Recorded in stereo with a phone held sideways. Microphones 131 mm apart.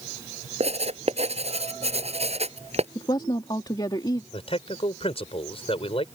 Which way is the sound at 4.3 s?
50° left (ahead or behind).